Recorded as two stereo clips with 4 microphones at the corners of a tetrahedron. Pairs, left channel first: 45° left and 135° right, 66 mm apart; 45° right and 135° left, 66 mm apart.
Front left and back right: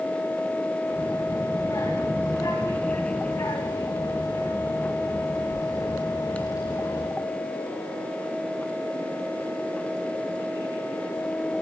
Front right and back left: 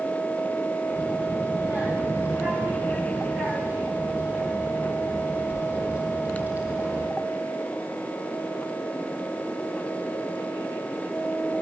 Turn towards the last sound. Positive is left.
turn(degrees=70)